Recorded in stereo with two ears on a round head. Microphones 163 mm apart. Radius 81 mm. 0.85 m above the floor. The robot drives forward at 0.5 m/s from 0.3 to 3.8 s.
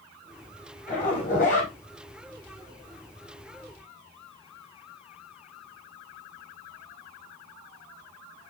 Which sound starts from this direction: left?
A zipper, at 0.9 s.